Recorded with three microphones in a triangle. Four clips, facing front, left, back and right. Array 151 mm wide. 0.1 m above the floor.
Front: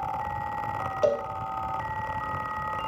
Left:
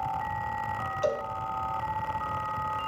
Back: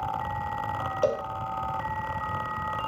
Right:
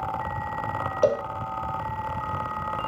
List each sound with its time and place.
1.0 s a cowbell: 90° right, 1.3 m